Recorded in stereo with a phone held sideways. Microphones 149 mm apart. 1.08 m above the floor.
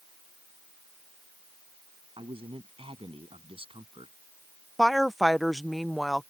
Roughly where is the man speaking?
Right.